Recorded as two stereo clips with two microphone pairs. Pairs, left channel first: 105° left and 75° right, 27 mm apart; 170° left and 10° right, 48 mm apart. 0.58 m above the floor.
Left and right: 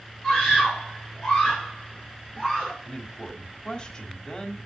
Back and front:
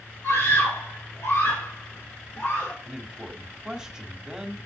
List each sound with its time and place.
0.2 s a scream: 160° left, 3.5 m; by 2.7 s 170° left, 2 m
2.8 s a man speaking: 60° left, 1.3 m